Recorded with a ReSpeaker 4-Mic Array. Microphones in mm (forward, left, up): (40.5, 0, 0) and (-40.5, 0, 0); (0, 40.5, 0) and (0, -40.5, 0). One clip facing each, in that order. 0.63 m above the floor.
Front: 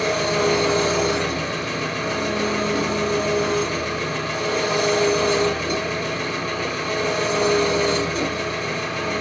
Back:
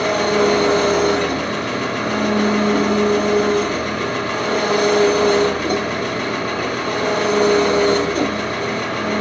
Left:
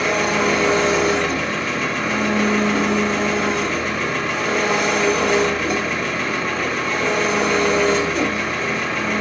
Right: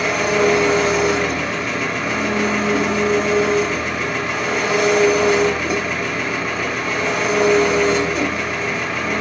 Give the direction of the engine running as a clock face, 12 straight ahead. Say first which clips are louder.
Back 4 dB, right 2 dB; 6 o'clock.